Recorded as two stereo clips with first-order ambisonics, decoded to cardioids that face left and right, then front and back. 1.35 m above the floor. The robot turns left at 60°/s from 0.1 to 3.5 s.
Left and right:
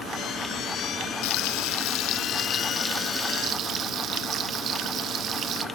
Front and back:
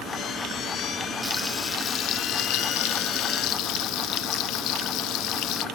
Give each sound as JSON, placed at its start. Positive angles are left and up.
{"t": 1.2, "sound": "frying", "azimuth_deg": 100, "distance_m": 0.5}